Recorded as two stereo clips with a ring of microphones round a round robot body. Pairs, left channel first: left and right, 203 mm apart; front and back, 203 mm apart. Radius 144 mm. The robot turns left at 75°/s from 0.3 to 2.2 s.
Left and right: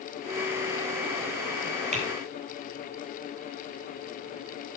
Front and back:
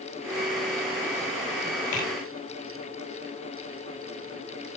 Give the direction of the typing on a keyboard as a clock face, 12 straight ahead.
1 o'clock.